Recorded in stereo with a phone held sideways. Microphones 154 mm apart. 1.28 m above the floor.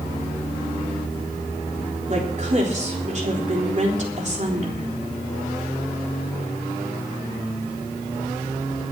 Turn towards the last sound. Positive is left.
turn(degrees=-50)  # may be behind; listen again after turning